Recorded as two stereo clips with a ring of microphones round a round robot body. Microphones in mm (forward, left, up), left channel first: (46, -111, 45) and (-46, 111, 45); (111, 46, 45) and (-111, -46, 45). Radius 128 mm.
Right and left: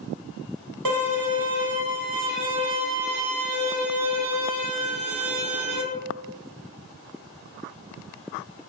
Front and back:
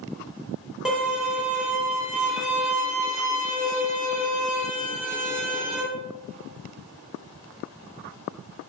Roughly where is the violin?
Behind left.